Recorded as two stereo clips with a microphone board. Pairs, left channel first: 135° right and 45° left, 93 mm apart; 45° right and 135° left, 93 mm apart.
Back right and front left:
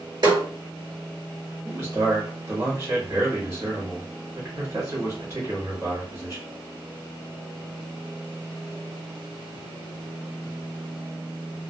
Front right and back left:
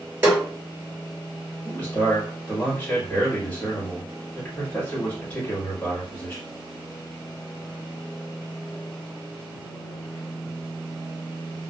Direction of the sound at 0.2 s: 70° left.